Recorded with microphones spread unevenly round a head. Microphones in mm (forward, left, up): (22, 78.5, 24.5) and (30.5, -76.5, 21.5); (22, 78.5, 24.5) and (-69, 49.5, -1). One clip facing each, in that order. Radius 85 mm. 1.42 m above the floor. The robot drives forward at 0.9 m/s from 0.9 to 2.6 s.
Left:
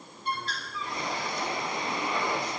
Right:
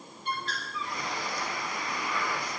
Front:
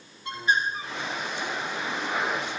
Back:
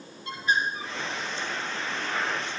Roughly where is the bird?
Ahead left.